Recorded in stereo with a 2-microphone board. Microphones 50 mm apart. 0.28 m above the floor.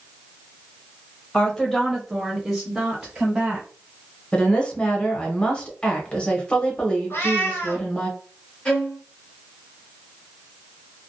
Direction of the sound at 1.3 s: 15° left (ahead or behind).